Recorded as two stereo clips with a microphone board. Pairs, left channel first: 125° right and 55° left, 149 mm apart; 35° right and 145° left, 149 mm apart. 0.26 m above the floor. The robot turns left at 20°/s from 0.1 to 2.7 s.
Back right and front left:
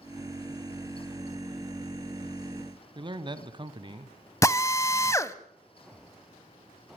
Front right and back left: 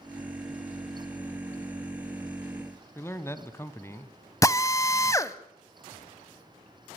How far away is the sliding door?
I don't hear a sliding door.